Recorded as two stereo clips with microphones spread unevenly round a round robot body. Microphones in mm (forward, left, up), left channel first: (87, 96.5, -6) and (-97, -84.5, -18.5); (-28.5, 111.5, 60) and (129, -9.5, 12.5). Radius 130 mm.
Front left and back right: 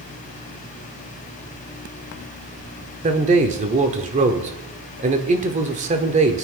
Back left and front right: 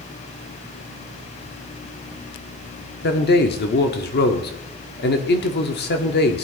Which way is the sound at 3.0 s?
175° left.